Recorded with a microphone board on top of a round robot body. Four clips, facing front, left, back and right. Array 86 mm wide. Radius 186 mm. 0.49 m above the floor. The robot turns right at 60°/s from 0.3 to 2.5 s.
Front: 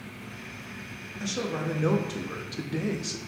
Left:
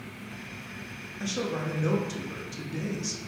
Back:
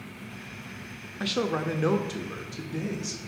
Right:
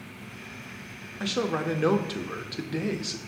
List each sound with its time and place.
1.2 s a man speaking: 150° right, 0.9 m; by 3.2 s 70° right, 0.9 m